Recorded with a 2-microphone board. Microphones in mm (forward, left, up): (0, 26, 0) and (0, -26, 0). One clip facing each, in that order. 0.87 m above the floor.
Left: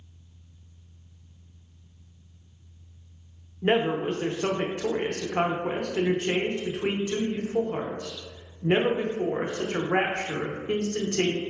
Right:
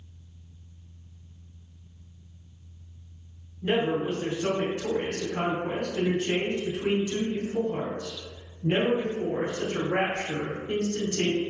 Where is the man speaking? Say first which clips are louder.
Left 2 dB; 45° left (ahead or behind), 0.6 m.